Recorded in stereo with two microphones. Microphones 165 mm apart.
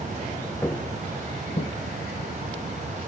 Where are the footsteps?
10° left (ahead or behind), 0.7 m; by 1.7 s 70° left (ahead or behind), 1.6 m.